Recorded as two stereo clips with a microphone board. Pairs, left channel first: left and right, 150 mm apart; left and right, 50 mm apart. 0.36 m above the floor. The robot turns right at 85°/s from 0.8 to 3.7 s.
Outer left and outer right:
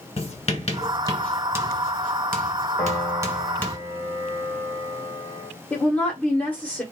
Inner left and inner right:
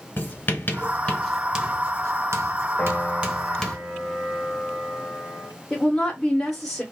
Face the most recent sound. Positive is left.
turn(degrees=10)  # may be behind; listen again after turning